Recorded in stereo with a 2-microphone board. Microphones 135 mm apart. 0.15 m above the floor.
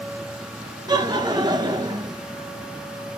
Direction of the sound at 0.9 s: 30° right (ahead or behind).